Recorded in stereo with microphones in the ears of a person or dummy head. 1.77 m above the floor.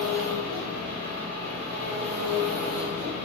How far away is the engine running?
About 1.1 m.